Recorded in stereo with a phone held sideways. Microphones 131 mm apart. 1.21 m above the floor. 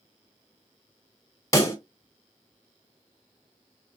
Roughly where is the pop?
Left.